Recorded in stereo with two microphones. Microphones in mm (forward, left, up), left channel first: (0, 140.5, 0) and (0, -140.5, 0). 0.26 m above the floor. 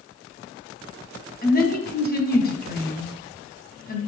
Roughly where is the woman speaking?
Left.